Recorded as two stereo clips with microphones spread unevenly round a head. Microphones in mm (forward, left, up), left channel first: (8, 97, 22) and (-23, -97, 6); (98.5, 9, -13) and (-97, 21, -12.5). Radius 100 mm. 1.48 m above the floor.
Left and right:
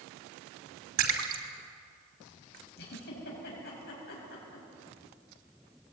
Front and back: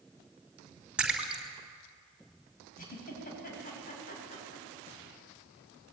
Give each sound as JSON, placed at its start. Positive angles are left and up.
{"t": 1.0, "sound": "a splash", "azimuth_deg": -100, "distance_m": 3.0}
{"t": 2.8, "sound": "a giggle", "azimuth_deg": 40, "distance_m": 6.5}